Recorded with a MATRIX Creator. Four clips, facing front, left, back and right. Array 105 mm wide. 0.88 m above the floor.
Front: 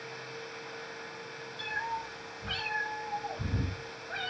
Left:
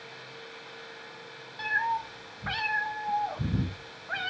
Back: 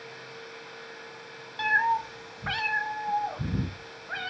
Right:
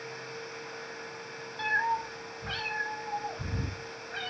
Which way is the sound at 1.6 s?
175° right.